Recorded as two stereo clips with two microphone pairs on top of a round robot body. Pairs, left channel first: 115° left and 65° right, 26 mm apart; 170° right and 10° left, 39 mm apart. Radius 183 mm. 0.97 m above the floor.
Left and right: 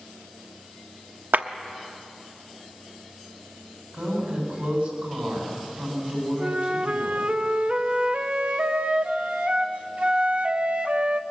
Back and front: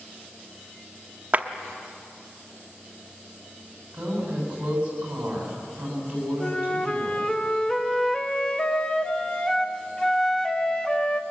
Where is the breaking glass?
No breaking glass in this recording.